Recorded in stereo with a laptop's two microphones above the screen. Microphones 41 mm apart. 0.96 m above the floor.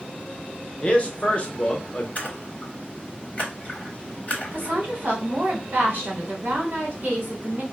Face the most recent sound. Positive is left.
turn(degrees=-55)  # may be behind; listen again after turning